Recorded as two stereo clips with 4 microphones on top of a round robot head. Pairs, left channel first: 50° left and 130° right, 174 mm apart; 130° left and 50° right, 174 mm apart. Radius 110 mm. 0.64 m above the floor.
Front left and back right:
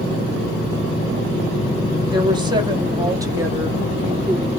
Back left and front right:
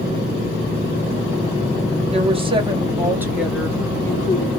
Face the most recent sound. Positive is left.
turn(degrees=145)